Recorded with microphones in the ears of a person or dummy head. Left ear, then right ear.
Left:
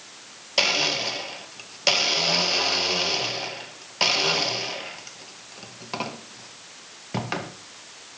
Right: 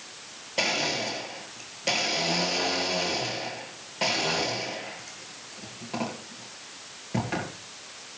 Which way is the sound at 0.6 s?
45° left (ahead or behind).